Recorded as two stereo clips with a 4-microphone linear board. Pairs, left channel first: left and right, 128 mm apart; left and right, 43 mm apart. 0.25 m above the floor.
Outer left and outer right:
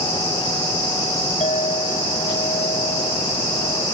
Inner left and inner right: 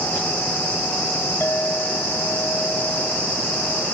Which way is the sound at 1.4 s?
70° left (ahead or behind).